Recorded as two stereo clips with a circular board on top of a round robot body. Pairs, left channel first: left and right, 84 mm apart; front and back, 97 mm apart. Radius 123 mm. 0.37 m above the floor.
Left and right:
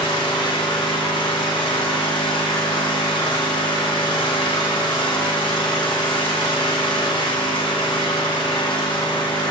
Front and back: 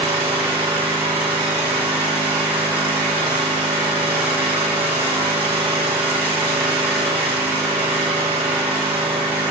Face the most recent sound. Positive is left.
turn(degrees=105)